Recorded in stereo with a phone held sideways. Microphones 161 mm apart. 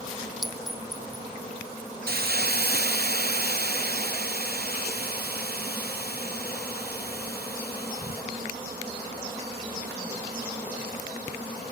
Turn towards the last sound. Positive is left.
turn(degrees=-70)  # may be behind; listen again after turning